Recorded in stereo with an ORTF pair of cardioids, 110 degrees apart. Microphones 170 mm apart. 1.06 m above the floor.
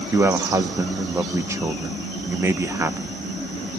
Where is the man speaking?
15° right, 1.1 m.